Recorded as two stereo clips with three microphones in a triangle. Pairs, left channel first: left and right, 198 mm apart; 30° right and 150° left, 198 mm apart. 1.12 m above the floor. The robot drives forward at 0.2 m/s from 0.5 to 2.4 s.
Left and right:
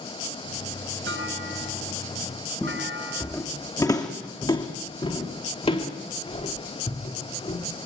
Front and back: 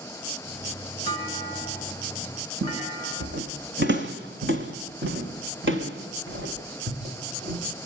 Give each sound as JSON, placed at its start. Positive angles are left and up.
{"t": 1.1, "sound": "a clunk", "azimuth_deg": -100, "distance_m": 6.0}
{"t": 2.6, "sound": "footsteps", "azimuth_deg": 175, "distance_m": 2.0}